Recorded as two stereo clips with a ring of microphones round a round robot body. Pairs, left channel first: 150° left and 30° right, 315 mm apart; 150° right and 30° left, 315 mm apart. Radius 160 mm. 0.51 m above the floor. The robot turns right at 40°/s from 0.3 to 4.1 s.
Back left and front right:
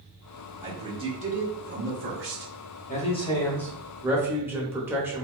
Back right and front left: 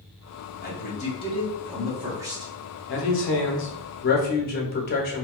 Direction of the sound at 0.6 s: 110° right.